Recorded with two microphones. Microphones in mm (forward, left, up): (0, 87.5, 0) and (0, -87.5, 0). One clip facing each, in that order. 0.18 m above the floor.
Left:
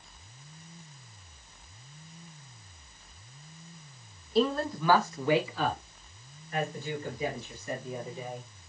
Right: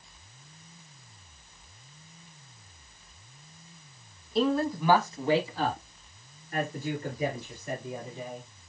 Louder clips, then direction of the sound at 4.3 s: Right 1 dB; centre (ahead or behind).